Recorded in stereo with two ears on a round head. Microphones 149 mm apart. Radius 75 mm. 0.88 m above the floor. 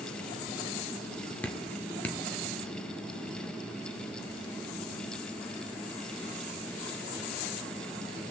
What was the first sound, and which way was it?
Dripping, 10° left (ahead or behind).